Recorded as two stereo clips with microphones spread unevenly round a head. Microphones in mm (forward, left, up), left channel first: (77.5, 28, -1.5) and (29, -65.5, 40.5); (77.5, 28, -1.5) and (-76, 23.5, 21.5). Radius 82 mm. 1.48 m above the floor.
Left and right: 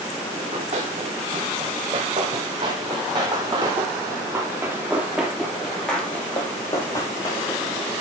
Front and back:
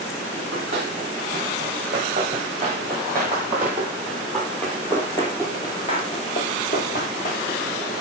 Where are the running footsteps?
125° right, 4 m; by 7.7 s straight ahead, 2 m.